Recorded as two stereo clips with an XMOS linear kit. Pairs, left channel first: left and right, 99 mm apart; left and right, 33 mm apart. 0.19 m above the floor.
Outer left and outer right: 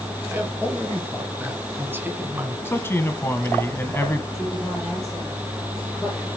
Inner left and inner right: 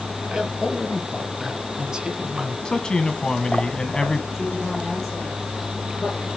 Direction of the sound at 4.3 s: Centre (ahead or behind).